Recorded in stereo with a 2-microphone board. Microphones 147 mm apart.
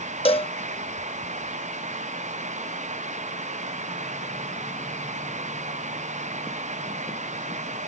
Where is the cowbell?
40° left (ahead or behind).